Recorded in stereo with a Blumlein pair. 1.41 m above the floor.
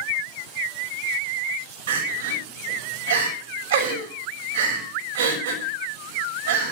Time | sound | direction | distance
1.9 | crying | 60° right | 6.5 m